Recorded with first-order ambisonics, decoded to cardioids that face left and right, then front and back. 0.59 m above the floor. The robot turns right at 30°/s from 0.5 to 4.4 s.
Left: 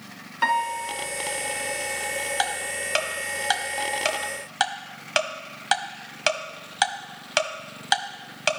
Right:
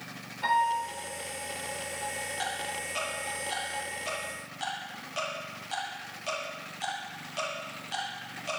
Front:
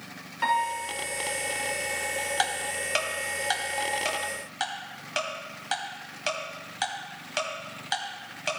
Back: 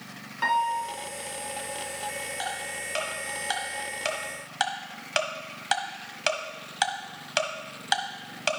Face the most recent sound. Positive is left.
turn(degrees=110)